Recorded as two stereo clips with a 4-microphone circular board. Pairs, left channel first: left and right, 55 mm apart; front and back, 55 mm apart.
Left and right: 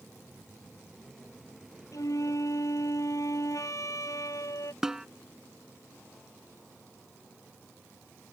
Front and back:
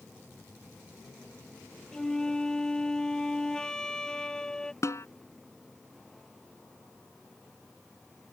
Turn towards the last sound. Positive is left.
turn(degrees=-10)